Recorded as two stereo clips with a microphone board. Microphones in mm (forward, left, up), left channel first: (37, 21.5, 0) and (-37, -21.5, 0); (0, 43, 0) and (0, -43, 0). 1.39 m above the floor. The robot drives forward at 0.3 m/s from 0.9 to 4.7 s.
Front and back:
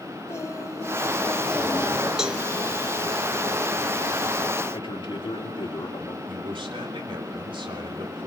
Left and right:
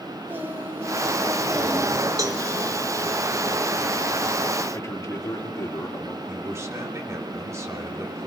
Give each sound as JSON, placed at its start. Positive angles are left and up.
{"t": 0.3, "sound": "singing", "azimuth_deg": -25, "distance_m": 1.5}
{"t": 2.2, "sound": "a cowbell", "azimuth_deg": -70, "distance_m": 0.9}
{"t": 4.7, "sound": "a man speaking", "azimuth_deg": 35, "distance_m": 3.0}
{"t": 6.3, "sound": "a man speaking", "azimuth_deg": -145, "distance_m": 3.0}